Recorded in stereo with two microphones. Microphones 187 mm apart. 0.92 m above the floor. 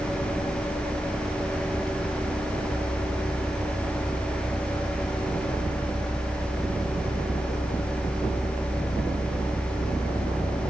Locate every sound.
Only background noise.